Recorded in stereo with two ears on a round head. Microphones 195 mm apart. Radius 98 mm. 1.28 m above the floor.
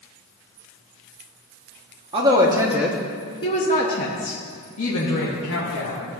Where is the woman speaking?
25° right (ahead or behind), 1.3 m; by 6.0 s 80° left, 2 m.